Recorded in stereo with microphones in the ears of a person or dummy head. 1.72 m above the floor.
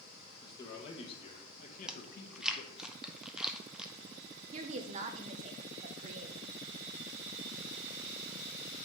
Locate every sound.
0.4 s a man speaking: 25° left (ahead or behind), 2.0 m; by 2.9 s 65° left (ahead or behind), 1.2 m
1.9 s chewing: 5° right (ahead or behind), 0.6 m
4.5 s a woman speaking: 40° right (ahead or behind), 0.7 m